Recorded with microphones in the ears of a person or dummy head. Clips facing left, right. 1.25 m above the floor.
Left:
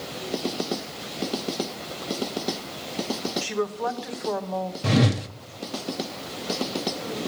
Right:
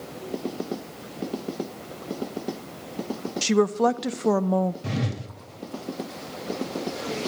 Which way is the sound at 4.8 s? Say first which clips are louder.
Left 8 dB; 55° left (ahead or behind).